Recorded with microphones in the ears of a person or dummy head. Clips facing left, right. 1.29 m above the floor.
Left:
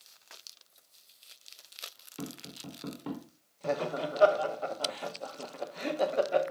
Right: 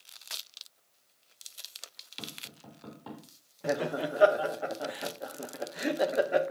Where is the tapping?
30° left (ahead or behind), 4 m.